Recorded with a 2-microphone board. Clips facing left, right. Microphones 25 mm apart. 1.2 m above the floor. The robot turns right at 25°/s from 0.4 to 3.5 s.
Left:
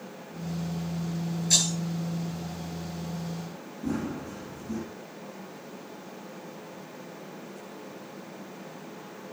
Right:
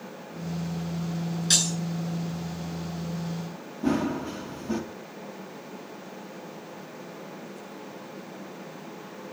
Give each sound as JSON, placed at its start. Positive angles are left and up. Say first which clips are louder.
{"t": 1.5, "sound": "breaking glass", "louder": "right 1 dB", "side_deg": -55, "distance_m": 8.0}
{"t": 3.8, "sound": "running footsteps", "louder": "right 6 dB", "side_deg": -55, "distance_m": 2.0}